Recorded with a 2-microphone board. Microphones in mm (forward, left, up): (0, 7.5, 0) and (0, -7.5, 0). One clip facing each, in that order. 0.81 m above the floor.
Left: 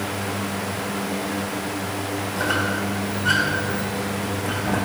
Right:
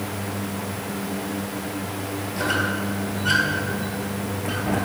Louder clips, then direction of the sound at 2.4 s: Even; 15° right (ahead or behind).